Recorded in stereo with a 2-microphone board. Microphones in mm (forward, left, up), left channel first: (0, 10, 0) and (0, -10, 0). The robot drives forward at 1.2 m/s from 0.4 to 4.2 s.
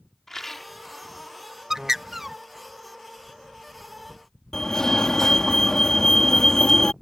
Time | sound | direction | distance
0.3 | a rattle | 20° left (ahead or behind) | ?
1.7 | a bird | 20° right (ahead or behind) | ?
4.5 | a fire alarm | 35° left (ahead or behind) | ?